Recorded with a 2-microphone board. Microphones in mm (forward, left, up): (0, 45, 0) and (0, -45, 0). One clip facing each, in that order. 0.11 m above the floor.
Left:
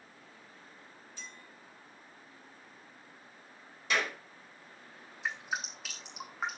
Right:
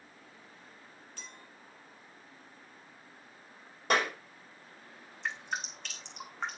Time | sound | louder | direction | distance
1.2 | a clink | left 1 dB | 60° right (ahead or behind) | 3 m
3.9 | a clap | right 4 dB | 55° right (ahead or behind) | 5 m
5.2 | dripping | even | 5° left (ahead or behind) | 2.5 m